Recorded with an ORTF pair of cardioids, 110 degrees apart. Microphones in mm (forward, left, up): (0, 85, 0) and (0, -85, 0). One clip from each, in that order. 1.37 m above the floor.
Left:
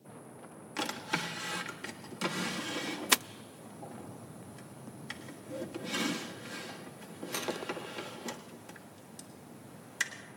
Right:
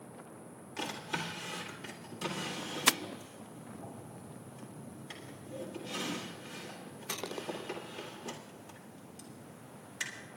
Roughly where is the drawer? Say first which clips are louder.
Left 3 dB; ahead left.